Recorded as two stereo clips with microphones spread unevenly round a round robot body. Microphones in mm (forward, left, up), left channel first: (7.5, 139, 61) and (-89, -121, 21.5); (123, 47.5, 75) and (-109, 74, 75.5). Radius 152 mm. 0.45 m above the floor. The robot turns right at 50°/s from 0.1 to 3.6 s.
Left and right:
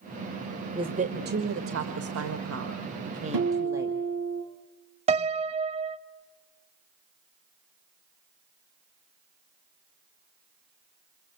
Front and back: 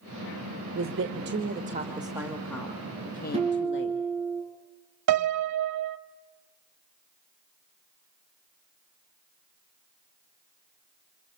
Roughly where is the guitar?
Behind right.